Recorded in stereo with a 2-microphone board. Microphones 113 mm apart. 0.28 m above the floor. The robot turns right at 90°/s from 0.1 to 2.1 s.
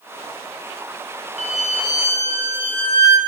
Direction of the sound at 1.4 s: 95° left.